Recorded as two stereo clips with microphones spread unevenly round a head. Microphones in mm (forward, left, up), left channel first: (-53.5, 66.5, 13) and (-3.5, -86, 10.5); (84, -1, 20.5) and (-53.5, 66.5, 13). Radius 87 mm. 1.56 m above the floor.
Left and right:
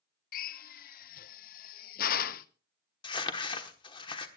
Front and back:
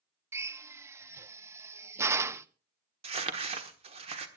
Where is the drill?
80° left, 0.6 m.